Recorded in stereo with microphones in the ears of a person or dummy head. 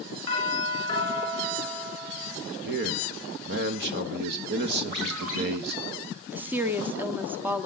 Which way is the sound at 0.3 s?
15° left (ahead or behind).